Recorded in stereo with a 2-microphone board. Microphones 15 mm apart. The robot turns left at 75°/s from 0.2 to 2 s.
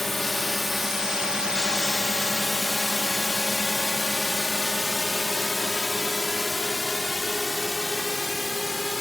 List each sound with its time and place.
0.0 s a drone: 15° left (ahead or behind); by 9.0 s 25° left (ahead or behind)